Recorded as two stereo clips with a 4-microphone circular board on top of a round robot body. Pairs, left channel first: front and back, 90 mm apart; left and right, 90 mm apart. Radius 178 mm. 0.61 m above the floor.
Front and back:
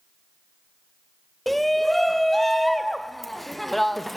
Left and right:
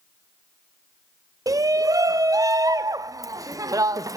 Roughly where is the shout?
Right.